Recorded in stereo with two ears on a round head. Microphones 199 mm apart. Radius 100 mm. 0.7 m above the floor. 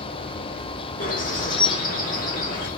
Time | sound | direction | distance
1.0 | a bird | 40° left (ahead or behind) | 1.5 m